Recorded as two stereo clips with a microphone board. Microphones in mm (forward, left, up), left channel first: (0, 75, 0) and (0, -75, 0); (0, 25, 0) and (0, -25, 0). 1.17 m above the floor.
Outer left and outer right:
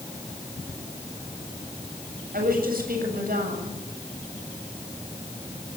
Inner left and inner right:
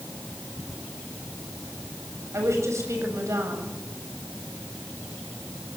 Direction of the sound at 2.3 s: 75° right (ahead or behind).